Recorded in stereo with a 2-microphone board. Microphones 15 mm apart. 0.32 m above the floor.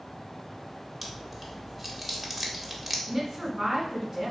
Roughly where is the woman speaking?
Right.